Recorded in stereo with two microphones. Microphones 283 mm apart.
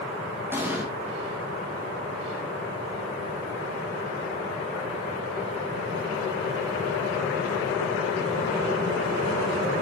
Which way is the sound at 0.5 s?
10° right (ahead or behind).